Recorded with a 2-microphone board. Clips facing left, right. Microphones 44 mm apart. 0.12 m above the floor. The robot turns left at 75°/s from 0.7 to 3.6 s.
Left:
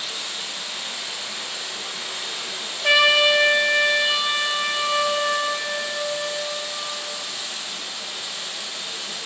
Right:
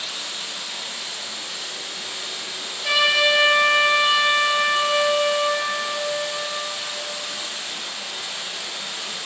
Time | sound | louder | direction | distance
0.0 | running water | even | 170° left | 2.5 m
2.8 | a trumpet | left 2 dB | 40° left | 0.5 m